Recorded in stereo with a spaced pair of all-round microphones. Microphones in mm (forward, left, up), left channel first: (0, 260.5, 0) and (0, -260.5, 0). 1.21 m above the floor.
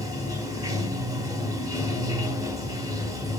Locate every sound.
0.0 s running water: 5° right (ahead or behind), 1.1 m